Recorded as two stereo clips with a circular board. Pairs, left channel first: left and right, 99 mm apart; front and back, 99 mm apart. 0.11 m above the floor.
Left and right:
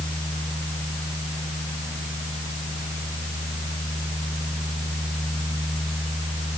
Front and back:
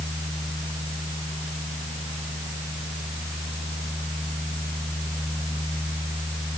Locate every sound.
Only background noise.